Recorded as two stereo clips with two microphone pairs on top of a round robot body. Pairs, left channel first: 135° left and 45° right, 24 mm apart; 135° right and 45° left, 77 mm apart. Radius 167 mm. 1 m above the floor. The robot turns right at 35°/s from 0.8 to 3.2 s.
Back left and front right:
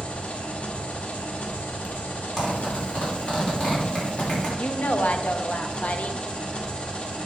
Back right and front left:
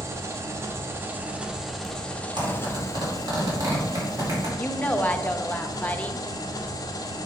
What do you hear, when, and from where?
0.0 s an engine running: 100° left, 0.7 m; by 7.3 s 175° right, 0.7 m
2.4 s a zipper: 60° left, 3 m; by 4.5 s 90° left, 3 m
4.6 s a woman speaking: 150° left, 0.9 m